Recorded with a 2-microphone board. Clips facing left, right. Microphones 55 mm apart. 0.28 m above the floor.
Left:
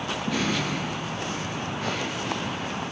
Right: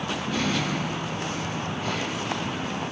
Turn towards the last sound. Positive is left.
turn(degrees=65)  # may be behind; listen again after turning